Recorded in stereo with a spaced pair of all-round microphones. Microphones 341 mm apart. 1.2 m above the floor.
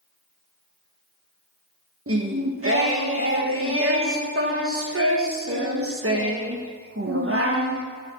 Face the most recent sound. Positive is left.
turn(degrees=-40)  # may be behind; listen again after turning